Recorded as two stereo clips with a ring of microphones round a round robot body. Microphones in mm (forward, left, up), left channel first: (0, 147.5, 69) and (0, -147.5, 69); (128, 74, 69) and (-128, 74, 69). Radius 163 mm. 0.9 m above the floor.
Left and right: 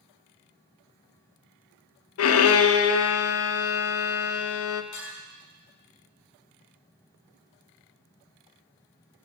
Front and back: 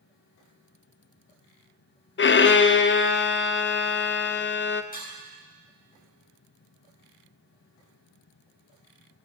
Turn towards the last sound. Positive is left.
turn(degrees=55)